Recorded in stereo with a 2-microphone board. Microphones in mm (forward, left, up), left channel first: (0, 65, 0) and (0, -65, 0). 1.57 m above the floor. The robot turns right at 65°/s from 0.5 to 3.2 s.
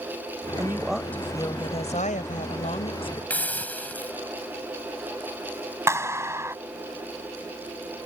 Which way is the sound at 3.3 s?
10° left (ahead or behind).